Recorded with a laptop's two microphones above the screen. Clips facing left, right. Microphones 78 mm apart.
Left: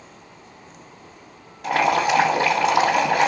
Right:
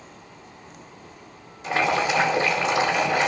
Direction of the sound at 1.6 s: 65° left (ahead or behind).